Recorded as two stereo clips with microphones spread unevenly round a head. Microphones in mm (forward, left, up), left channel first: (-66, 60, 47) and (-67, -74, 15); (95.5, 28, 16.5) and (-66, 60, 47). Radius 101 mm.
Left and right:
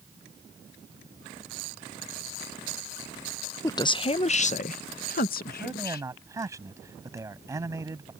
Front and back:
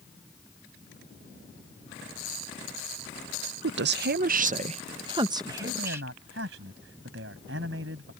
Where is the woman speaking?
160° left; by 6.1 s 90° left.